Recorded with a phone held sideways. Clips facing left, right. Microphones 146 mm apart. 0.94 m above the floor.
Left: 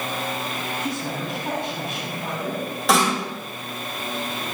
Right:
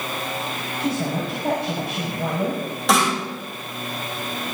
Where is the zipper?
I don't hear a zipper.